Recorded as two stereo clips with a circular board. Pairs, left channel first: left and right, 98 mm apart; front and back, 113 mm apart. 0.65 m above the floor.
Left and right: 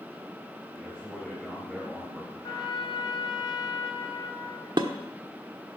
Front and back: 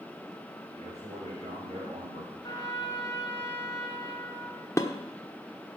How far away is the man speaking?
About 3.5 m.